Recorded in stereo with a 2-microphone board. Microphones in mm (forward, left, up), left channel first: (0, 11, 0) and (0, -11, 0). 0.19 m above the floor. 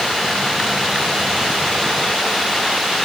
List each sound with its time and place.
Only background noise.